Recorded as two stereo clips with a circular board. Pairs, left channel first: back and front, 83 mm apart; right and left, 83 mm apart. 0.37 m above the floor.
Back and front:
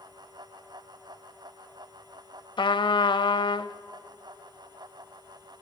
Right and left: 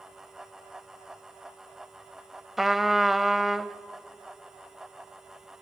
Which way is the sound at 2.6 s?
175° left.